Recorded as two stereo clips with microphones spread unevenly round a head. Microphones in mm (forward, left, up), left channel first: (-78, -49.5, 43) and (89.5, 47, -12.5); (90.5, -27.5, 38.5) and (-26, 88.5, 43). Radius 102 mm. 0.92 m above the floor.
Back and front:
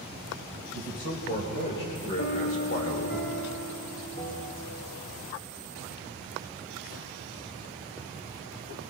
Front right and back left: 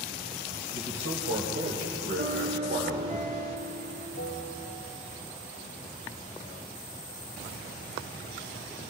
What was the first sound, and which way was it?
A man speaking, 165° left.